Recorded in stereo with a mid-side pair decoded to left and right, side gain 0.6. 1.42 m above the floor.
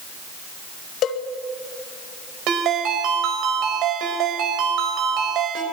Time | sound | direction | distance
1.0 | a cowbell | 55° left | 2 m
2.5 | a ringtone | 65° right | 4.5 m